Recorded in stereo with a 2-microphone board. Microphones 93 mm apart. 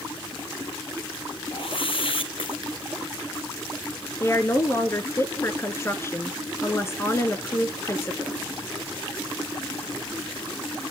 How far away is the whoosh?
About 1.6 m.